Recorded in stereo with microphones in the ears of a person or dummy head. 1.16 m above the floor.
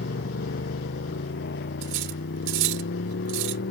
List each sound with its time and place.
0.0 s a motorcycle: 55° left (ahead or behind)
1.8 s cutlery clinking: 60° right (ahead or behind)